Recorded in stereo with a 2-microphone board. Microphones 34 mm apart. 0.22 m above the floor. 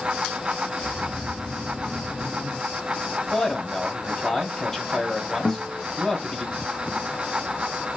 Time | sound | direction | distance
0.8 | snoring | 30° left (ahead or behind) | 4 m
3.3 | a man speaking | 5° left (ahead or behind) | 1.8 m
5.5 | a guitar | 60° left (ahead or behind) | 0.8 m